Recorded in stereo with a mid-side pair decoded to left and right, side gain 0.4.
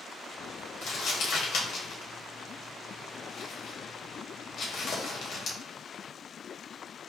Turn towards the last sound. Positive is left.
turn(degrees=70)